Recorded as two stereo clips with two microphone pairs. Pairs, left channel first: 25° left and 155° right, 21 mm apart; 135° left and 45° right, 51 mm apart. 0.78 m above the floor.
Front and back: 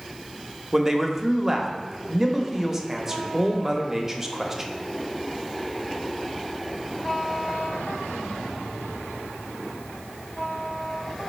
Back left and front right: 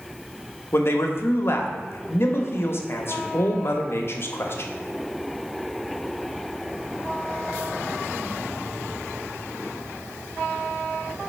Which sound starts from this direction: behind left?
A man speaking, at 0.7 s.